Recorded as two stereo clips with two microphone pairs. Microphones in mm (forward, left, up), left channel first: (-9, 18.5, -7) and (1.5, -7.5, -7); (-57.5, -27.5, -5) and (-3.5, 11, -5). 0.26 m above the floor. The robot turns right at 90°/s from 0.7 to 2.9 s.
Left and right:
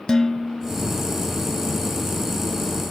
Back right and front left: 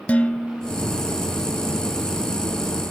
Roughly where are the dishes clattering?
Behind.